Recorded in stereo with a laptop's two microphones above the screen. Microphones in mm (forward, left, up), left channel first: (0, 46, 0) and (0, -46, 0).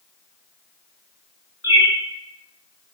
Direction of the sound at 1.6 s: 25° right (ahead or behind).